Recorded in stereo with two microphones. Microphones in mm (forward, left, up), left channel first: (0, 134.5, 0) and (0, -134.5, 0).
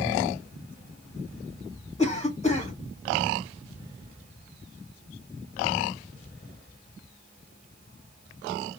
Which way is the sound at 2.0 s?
25° left (ahead or behind).